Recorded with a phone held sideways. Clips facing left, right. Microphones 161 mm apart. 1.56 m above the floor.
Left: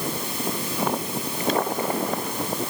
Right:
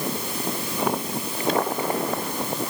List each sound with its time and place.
Only background noise.